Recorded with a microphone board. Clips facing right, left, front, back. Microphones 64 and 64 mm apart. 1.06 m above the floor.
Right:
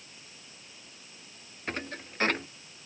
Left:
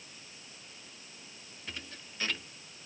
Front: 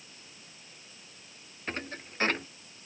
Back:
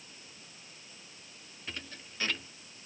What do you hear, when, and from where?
1.7 s a thud: 50° right